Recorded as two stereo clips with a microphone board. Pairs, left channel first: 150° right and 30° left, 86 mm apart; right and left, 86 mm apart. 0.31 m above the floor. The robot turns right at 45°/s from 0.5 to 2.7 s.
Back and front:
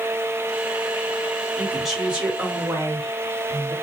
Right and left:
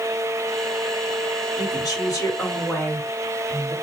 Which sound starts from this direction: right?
A woman speaking, at 1.6 s.